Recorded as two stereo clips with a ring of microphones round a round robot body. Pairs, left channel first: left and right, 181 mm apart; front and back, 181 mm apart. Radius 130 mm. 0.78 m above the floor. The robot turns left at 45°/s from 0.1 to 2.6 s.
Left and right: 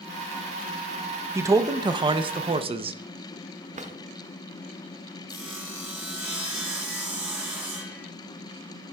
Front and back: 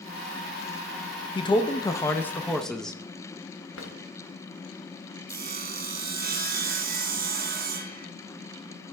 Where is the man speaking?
30° right, 0.5 m; by 3.0 s 85° right, 0.5 m.